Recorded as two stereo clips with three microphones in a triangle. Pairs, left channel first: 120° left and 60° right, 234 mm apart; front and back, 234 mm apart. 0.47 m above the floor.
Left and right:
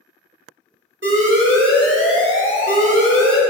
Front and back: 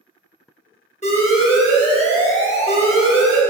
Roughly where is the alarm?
Ahead right.